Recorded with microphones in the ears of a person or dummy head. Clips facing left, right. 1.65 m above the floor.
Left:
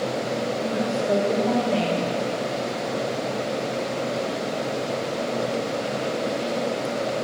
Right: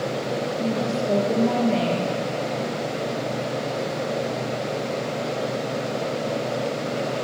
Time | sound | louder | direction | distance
0.6 | a woman speaking | even | centre (ahead or behind) | 0.8 m